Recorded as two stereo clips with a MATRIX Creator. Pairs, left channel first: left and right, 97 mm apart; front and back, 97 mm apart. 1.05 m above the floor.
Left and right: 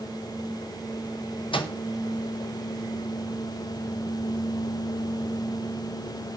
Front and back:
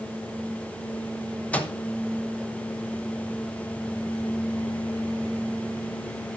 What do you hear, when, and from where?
1.5 s a microwave: 75° left, 0.8 m